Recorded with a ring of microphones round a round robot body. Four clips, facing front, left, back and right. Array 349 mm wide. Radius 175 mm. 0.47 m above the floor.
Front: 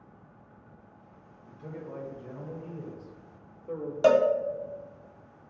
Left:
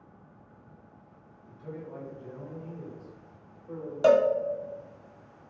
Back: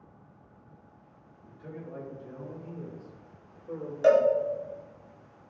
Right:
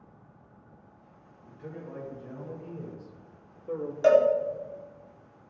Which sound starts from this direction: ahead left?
A cowbell, at 4.0 s.